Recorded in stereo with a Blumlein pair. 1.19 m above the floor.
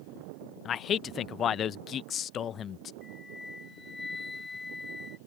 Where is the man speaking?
25° left.